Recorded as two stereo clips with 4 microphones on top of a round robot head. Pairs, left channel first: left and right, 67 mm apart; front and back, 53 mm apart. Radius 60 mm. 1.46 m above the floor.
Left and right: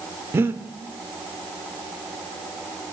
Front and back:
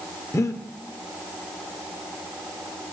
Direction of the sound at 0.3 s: 30° right.